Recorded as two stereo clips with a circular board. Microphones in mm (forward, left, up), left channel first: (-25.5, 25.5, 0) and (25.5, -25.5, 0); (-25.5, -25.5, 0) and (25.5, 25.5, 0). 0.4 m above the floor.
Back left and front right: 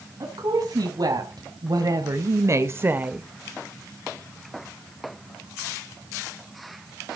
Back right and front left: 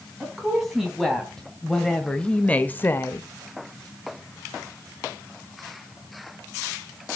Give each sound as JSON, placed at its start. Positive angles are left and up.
{"t": 0.2, "sound": "a woman speaking", "azimuth_deg": -40, "distance_m": 3.0}